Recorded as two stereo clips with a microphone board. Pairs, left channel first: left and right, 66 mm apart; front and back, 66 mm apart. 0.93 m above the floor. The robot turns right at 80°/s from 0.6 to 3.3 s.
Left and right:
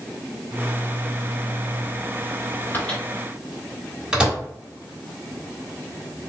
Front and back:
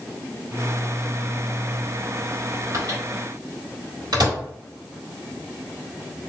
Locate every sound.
2.7 s a microwave: 145° left, 1.6 m; by 4.4 s 170° right, 1.6 m